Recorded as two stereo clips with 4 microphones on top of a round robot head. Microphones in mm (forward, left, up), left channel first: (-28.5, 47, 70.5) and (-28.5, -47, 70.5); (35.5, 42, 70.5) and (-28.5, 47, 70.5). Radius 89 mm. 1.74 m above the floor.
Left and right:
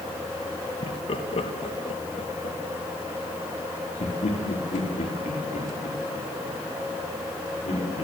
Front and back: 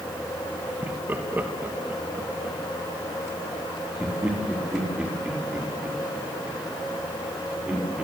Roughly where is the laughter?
Behind left.